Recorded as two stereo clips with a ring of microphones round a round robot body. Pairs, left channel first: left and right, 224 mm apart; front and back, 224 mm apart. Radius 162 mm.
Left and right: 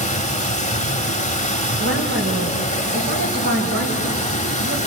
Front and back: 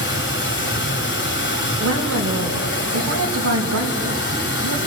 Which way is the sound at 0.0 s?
30° left.